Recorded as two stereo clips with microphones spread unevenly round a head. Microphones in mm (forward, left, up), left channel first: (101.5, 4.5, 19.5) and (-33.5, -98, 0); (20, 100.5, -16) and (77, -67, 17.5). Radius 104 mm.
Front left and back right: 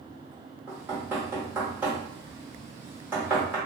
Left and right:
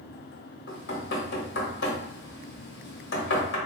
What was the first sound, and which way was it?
Knocking, 135° left.